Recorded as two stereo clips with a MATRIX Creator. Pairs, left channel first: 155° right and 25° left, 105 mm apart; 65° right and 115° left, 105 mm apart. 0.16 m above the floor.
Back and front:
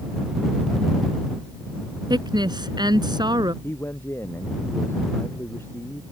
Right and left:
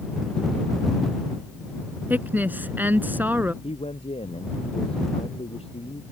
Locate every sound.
2.1 s a woman speaking: 45° left
3.6 s a man speaking: 90° right